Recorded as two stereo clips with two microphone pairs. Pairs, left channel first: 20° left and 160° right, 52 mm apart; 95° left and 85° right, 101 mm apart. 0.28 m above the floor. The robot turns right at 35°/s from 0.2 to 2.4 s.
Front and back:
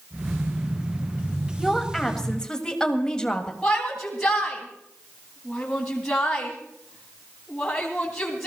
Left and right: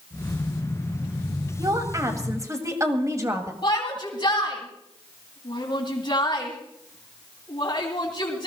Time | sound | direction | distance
1.6 | a woman speaking | 75° right | 1.7 m
3.6 | a shout | 95° left | 2.5 m